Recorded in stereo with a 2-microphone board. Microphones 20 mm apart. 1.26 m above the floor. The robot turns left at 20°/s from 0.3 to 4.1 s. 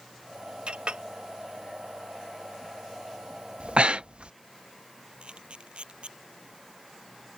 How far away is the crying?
I don't hear crying.